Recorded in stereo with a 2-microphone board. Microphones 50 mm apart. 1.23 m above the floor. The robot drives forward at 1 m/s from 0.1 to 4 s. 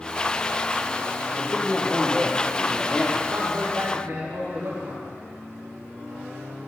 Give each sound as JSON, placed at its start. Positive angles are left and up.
{"t": 1.4, "sound": "a man speaking", "side_deg": 25, "distance_m": 1.8}
{"t": 3.3, "sound": "a man speaking", "side_deg": -75, "distance_m": 4.5}